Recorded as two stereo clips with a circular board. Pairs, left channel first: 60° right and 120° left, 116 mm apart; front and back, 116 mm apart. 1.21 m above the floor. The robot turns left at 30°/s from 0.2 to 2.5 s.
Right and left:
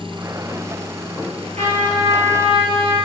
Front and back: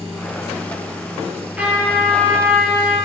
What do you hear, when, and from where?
1.6 s a trumpet: 100° left, 6.5 m; by 3.0 s 70° left, 6.5 m